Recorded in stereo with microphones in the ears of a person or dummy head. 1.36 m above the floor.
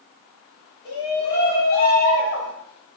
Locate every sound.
0.8 s a shout: 55° left (ahead or behind), 4 m; by 2.5 s 65° left (ahead or behind), 5 m